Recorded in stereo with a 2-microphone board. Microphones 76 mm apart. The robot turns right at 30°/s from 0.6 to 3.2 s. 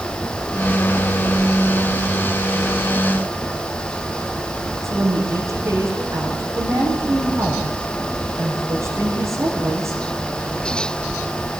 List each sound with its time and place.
4.8 s a woman speaking: 45° right (ahead or behind), 7.5 m